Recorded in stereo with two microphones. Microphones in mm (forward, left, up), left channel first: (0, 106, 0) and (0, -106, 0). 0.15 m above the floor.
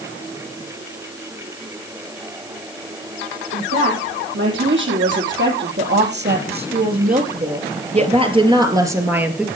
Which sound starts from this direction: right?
A woman speaking, at 3.5 s.